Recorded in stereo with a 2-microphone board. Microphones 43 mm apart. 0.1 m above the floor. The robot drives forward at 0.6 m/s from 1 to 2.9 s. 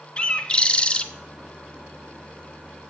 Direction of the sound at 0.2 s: 30° left (ahead or behind).